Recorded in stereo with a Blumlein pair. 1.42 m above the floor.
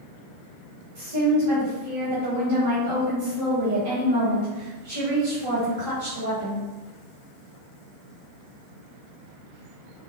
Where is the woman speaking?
45° right, 1.2 m.